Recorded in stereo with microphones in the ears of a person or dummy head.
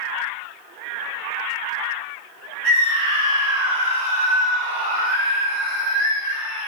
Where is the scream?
55° right (ahead or behind), 7 m; by 6.7 s 70° right (ahead or behind), 5 m.